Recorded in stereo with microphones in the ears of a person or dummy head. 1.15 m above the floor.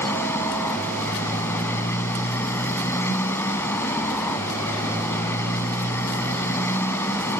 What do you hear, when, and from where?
0.0 s a motorcycle: 20° left (ahead or behind)